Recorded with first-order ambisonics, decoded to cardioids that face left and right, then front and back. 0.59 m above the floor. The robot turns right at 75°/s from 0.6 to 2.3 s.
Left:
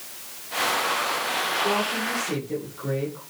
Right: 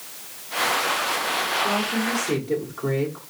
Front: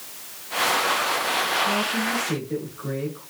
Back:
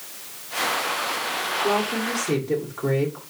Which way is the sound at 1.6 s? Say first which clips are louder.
Right 1 dB, even; 160° left.